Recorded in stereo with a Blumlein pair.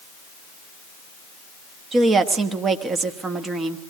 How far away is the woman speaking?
About 1.2 m.